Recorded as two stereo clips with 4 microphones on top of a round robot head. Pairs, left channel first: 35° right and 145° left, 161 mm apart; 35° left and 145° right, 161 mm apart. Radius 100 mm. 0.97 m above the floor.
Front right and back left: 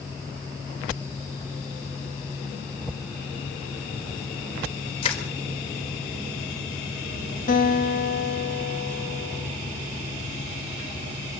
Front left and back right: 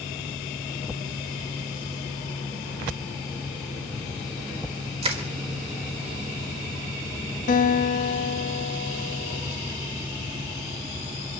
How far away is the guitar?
About 2.5 m.